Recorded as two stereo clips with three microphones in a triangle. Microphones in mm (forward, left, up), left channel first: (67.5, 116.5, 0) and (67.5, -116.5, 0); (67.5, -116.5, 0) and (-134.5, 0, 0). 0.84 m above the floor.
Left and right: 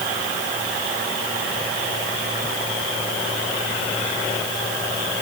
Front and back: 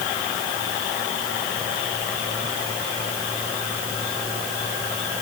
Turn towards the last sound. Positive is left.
No sound to turn to.